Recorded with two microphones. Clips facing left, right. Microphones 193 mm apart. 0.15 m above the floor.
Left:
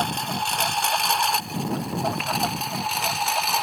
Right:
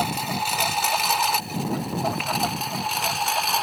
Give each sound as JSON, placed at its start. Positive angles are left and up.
{"t": 0.0, "sound": "a lawn mower", "side_deg": -5}